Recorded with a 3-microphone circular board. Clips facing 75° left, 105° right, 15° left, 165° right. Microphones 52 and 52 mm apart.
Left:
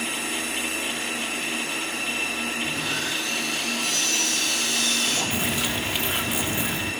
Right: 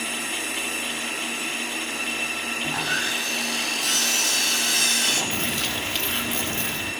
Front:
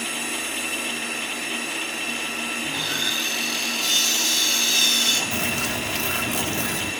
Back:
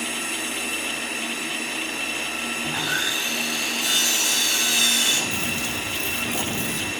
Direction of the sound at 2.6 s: 90° right.